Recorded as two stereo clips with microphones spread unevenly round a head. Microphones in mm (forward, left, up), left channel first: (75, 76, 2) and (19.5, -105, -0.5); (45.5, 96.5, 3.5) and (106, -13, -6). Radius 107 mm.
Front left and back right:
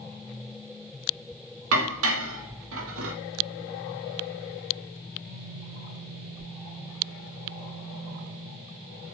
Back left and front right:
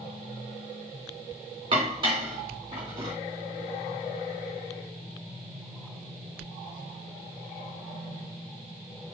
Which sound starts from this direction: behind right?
Dishes clattering, at 1.7 s.